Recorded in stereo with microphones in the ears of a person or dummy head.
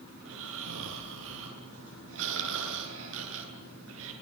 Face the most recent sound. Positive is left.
turn(degrees=-75)  # may be behind; listen again after turning